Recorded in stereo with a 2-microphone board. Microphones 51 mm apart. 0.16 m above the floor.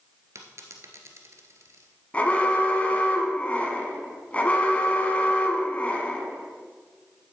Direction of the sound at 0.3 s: 60° right (ahead or behind).